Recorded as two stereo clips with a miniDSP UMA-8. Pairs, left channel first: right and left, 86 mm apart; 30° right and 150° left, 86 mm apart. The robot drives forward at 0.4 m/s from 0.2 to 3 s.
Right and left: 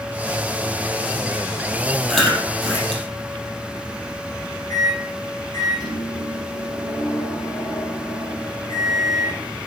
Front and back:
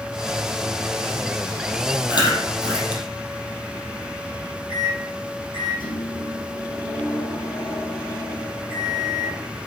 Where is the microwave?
45° right, 7.5 m.